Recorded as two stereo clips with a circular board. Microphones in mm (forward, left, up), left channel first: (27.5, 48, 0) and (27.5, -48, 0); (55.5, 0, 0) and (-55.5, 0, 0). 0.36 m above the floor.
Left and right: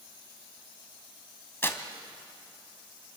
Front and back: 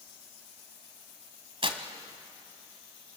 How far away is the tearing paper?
About 1.6 m.